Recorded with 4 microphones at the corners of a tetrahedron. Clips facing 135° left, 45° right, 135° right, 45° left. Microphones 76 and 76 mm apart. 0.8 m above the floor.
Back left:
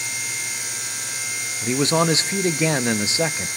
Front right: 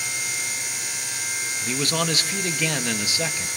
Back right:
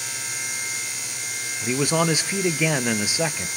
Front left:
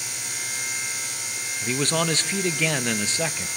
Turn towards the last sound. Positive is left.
turn(degrees=155)